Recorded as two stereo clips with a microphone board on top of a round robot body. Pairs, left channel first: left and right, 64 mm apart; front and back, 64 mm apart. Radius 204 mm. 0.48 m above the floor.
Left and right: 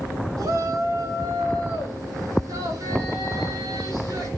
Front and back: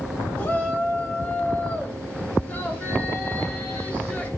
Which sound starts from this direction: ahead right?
A shout, at 0.4 s.